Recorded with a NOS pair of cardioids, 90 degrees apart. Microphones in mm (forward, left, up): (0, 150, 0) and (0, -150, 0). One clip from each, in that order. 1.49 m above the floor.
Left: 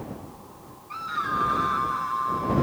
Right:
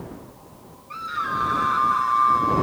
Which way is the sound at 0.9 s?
5° right.